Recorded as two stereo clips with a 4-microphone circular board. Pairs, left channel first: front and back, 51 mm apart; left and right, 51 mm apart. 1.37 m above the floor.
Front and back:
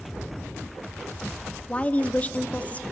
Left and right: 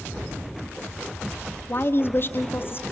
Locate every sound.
1.7 s a woman speaking: 60° left, 0.6 m